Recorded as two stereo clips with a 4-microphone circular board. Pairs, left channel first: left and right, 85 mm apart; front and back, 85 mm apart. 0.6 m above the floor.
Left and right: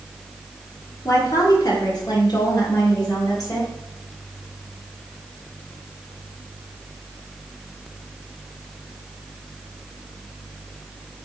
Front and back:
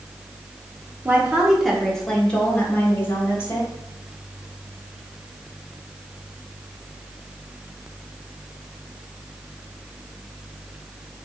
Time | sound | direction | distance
1.1 | a woman speaking | 120° left | 1.5 m